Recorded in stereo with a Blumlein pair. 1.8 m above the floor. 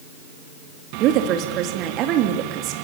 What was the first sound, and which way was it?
A woman speaking, 35° right.